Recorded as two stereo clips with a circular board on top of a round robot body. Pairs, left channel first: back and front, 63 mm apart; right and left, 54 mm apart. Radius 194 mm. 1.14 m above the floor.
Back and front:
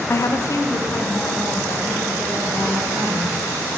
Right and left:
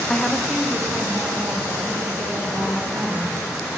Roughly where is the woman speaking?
Behind right.